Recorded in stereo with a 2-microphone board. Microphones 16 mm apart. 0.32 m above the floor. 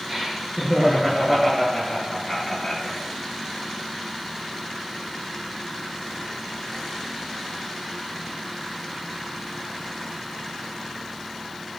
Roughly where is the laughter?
Right.